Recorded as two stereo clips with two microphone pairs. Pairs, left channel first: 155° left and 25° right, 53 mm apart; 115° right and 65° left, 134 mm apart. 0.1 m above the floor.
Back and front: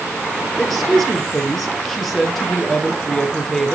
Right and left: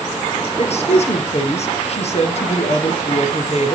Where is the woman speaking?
120° right, 1.8 m.